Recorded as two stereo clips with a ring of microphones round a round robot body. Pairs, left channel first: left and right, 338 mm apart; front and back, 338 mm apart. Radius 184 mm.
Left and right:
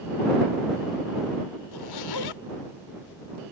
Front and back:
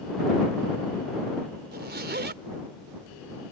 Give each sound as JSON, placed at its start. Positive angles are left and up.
{"t": 1.7, "sound": "a zipper", "azimuth_deg": 120}